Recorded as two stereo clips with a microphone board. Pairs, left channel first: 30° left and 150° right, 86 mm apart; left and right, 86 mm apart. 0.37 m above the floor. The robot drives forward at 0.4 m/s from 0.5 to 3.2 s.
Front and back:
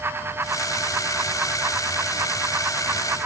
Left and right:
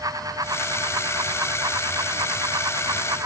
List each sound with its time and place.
Only background noise.